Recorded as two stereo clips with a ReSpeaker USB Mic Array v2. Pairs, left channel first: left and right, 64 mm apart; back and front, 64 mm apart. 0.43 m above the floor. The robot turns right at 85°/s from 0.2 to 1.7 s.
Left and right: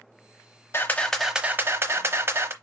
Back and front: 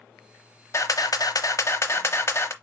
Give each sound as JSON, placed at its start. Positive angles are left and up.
{"t": 0.7, "sound": "a camera shutter", "azimuth_deg": 140, "distance_m": 0.8}